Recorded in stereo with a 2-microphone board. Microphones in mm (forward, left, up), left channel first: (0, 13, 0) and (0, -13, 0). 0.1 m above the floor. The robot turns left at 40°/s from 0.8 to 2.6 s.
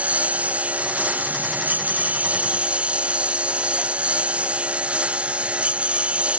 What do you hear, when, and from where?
0.0 s a lawn mower: 60° right; by 6.4 s 130° right